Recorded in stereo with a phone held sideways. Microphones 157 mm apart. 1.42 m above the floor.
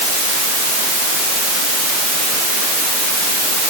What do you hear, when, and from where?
Only background noise.